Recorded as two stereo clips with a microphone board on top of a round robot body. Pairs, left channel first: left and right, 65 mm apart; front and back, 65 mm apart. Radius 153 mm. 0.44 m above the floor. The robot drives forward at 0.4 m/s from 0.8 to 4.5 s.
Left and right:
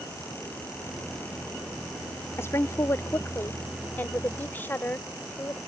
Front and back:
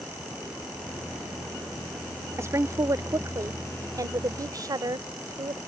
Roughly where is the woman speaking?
Behind left.